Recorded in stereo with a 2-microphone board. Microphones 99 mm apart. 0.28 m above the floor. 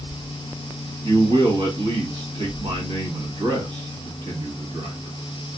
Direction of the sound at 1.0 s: 55° right (ahead or behind).